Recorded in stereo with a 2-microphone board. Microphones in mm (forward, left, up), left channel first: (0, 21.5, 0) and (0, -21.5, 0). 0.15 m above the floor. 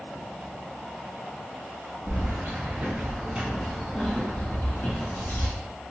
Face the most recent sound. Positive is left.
turn(degrees=55)  # may be behind; listen again after turning